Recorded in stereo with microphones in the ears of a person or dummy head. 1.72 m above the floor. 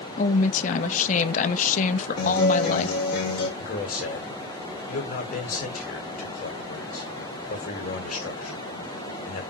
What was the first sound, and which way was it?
A woman speaking, 45° left (ahead or behind).